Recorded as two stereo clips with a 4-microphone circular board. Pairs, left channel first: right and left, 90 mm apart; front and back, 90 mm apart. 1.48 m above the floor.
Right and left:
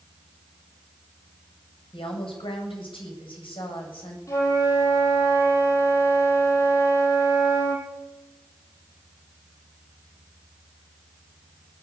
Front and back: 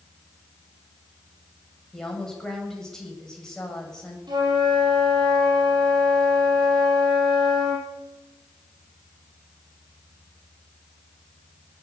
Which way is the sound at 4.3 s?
145° right.